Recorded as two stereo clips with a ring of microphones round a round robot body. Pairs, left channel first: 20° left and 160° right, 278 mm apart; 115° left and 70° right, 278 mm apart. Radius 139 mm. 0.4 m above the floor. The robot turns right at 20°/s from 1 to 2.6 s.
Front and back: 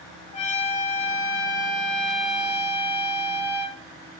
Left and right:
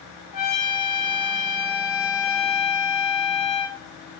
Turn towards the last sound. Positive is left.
turn(degrees=120)